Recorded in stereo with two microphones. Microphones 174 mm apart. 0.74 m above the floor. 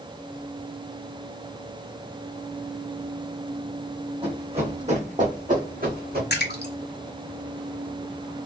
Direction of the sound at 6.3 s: 75° left (ahead or behind).